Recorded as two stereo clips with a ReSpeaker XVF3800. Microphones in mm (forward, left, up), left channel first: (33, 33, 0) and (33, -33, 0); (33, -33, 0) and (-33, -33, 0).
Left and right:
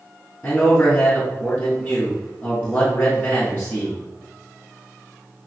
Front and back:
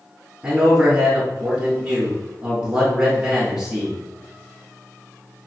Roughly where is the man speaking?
Behind left.